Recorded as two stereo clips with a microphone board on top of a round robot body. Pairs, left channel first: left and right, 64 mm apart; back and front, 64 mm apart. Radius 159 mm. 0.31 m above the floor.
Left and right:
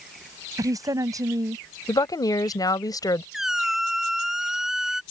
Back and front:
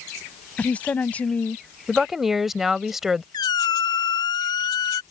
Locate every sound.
0.6 s a woman speaking: 115° right
1.9 s a woman speaking: 85° left
3.3 s a squeak: 175° right